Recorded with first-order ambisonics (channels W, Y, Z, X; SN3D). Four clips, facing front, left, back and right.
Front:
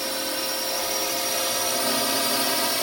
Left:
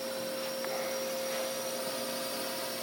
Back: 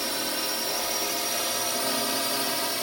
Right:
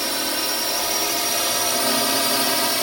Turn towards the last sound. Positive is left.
turn(degrees=-70)